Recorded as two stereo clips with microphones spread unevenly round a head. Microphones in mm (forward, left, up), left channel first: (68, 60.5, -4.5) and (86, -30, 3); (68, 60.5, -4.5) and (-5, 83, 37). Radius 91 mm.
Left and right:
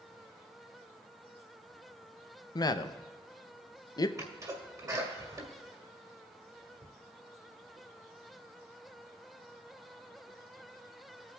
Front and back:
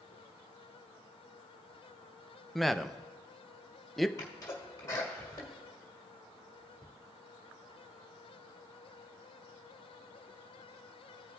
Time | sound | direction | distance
2.5 | a man speaking | 60° left | 0.6 m
4.2 | a sneeze | 25° right | 1.8 m